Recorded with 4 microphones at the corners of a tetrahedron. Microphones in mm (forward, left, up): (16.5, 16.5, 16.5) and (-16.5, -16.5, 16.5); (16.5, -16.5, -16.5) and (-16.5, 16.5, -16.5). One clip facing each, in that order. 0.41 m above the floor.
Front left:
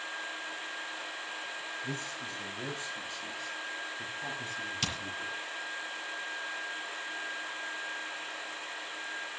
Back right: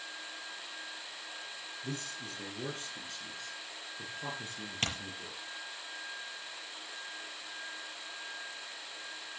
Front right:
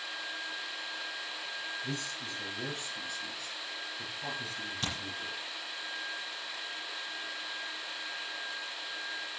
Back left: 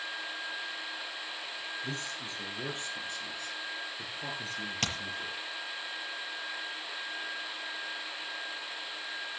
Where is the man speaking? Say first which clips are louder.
Front left 3 dB, even; 165° right, 5.5 m; by 5.4 s 175° left, 7.5 m.